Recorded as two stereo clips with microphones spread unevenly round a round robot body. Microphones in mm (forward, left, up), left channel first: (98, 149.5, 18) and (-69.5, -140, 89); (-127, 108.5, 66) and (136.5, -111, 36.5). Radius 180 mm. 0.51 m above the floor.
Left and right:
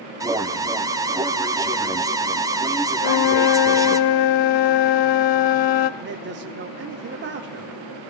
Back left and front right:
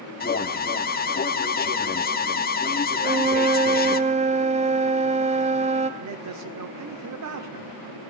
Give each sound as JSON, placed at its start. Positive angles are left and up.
{"t": 0.2, "sound": "an alarm", "azimuth_deg": 145, "distance_m": 1.1}
{"t": 3.0, "sound": "a flute", "azimuth_deg": 35, "distance_m": 0.7}
{"t": 6.0, "sound": "a man speaking", "azimuth_deg": -60, "distance_m": 1.3}